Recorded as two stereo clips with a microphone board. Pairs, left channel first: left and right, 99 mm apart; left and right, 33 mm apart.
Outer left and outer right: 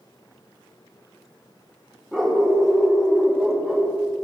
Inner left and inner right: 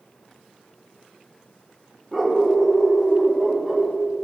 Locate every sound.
2.1 s a dog barking: centre (ahead or behind), 5 m